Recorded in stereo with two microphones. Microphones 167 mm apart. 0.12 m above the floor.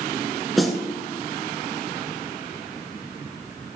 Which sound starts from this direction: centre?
A snare drum, at 0.6 s.